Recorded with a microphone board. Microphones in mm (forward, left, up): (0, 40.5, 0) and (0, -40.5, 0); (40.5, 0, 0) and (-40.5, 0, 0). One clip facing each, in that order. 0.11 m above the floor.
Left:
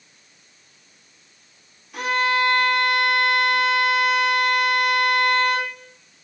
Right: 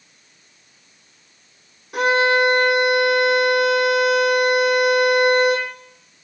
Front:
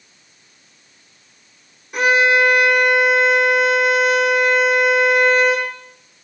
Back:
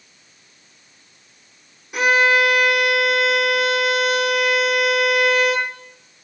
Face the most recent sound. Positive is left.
turn(degrees=-95)